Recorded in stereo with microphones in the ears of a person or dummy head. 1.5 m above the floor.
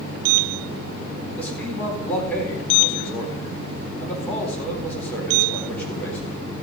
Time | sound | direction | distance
1.4 | a man speaking | 10° left (ahead or behind) | 4 m